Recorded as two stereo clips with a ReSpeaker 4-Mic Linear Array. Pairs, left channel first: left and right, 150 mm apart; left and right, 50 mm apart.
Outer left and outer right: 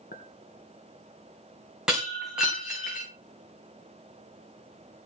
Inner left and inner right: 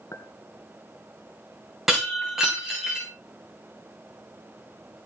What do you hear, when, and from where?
0.1 s a clink: 75° left (ahead or behind), 2.5 m
1.9 s breaking glass: 5° right (ahead or behind), 8 m